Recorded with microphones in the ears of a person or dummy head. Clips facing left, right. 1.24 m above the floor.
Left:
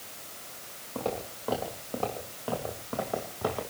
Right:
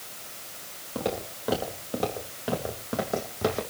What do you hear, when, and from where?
0.9 s footsteps: 15° right (ahead or behind), 4.5 m; by 3.6 s 25° right (ahead or behind), 3.5 m